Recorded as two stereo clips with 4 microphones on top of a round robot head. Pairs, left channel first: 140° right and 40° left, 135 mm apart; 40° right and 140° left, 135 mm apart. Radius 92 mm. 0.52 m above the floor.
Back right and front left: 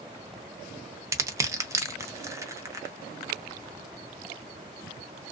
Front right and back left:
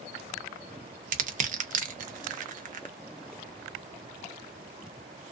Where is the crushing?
110° left, 0.7 m.